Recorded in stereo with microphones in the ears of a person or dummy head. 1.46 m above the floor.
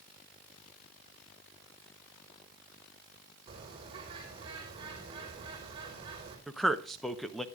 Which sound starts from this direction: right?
A bird, at 3.5 s.